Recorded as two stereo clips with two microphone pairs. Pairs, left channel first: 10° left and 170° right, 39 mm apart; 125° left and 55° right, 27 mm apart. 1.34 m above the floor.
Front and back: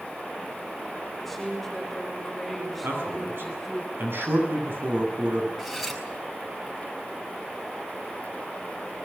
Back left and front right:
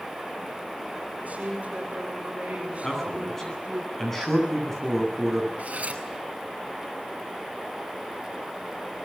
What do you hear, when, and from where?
1.2 s a woman speaking: 70° right, 7.5 m; by 3.8 s 80° right, 6 m
2.8 s a man speaking: 155° right, 10 m
5.6 s cutlery clinking: 75° right, 4 m